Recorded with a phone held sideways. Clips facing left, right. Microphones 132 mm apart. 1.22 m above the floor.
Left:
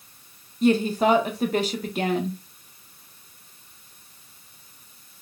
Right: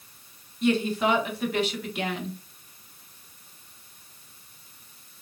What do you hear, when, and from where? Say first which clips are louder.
0.6 s a woman speaking: left 4 dB; 40° left (ahead or behind), 1.0 m